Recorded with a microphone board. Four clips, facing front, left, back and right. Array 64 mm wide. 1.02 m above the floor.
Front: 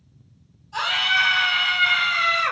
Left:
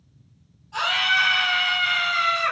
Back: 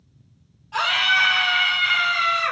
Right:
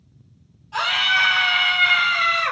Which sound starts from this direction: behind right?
A scream, at 0.7 s.